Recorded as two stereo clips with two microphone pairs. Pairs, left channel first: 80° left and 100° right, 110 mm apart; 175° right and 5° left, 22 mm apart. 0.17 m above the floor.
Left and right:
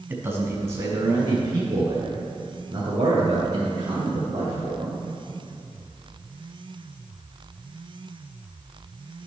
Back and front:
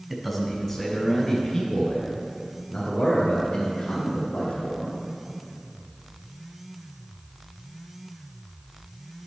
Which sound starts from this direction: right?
A man speaking, at 0.1 s.